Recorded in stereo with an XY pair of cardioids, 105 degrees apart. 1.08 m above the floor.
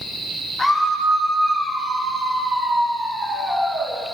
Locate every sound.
0.6 s a scream: 15° left, 2 m; by 4.0 s 20° right, 4 m